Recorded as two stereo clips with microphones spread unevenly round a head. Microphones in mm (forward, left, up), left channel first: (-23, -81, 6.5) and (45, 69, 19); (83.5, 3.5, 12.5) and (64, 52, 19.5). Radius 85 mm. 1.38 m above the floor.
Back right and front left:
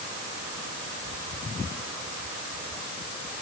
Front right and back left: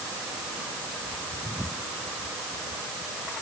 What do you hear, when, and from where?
Only background noise.